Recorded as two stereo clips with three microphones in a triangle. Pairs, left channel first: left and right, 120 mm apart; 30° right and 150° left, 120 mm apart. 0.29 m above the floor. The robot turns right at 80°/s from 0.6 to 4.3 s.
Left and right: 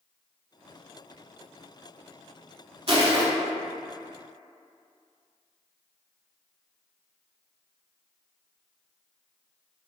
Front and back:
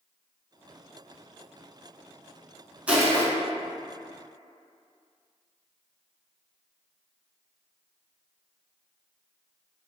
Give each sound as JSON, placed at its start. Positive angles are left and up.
{"t": 2.9, "sound": "crushing", "azimuth_deg": -130, "distance_m": 0.6}